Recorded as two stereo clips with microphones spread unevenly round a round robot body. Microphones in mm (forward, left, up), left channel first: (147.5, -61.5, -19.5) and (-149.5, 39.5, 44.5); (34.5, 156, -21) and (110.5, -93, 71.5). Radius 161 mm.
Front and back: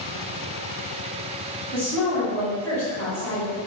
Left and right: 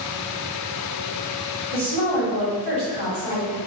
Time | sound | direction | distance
1.7 | a woman speaking | 95° right | 1.8 m